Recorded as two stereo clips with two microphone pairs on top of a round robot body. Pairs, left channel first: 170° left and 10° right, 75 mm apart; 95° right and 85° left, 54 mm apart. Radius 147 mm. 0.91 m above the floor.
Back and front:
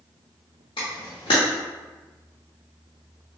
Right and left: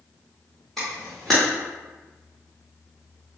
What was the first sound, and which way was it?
A camera shutter, 175° right.